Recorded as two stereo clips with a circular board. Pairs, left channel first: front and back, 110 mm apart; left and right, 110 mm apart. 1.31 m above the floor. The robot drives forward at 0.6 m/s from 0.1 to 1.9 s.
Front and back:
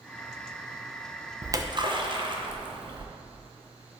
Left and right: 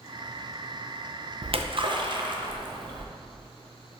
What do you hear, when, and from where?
1.4 s a splash: 115° right, 0.6 m; by 3.0 s 135° right, 0.8 m